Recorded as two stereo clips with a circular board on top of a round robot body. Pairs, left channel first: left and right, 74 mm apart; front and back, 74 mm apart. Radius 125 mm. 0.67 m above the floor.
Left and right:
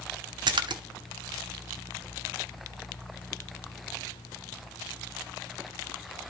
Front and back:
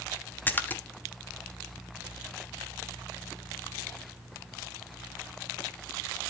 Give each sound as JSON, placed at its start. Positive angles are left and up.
{"t": 0.5, "sound": "a splash", "azimuth_deg": -65, "distance_m": 0.9}